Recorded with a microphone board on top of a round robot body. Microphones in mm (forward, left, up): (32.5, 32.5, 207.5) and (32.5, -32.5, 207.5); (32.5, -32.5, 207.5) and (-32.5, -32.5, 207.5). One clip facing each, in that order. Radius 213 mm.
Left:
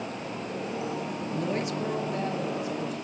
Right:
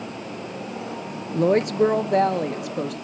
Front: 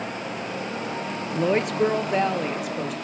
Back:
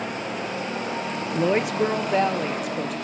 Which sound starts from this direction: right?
A woman speaking, at 1.3 s.